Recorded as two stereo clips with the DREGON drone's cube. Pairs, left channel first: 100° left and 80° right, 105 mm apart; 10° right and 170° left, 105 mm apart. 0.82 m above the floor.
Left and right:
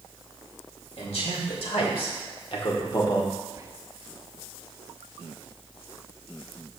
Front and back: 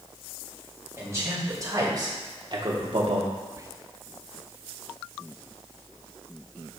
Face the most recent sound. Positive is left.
turn(degrees=-130)